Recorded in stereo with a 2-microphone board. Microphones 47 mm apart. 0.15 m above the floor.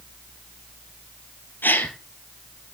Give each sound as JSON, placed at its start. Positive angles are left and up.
{"t": 1.6, "sound": "a gasp", "side_deg": 40, "distance_m": 2.5}